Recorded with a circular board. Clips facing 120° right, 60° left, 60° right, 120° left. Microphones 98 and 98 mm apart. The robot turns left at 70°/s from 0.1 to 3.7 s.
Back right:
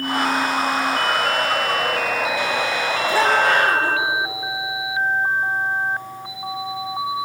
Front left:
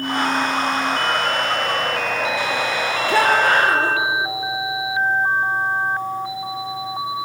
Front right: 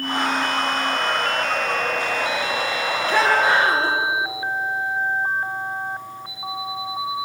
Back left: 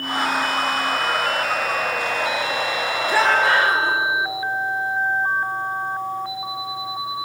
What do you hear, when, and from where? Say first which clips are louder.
3.1 s a shout: front left 1 dB, even; 40° left, 5 m; by 4.0 s straight ahead, 5 m